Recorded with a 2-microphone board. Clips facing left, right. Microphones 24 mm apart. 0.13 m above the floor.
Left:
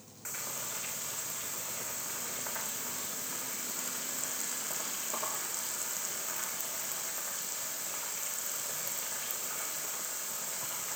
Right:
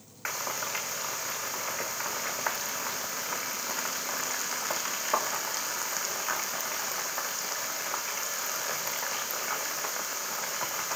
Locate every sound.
0.2 s frying: 60° right (ahead or behind), 4 m